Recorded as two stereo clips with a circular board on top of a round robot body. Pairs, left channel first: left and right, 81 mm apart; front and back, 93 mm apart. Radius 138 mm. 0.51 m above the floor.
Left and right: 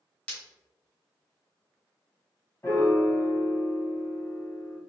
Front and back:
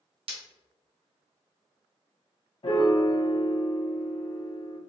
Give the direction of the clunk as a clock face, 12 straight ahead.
I don't hear a clunk.